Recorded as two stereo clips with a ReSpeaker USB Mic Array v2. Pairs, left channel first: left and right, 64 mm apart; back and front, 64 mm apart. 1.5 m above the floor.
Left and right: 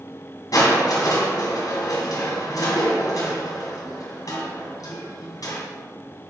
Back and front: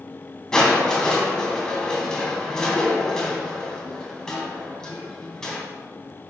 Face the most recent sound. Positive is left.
turn(degrees=100)